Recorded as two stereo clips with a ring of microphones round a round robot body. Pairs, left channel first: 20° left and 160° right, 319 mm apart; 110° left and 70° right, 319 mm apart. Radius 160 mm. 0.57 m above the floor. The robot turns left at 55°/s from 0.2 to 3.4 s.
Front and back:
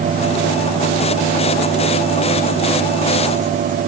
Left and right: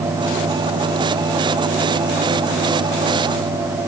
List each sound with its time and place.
Only background noise.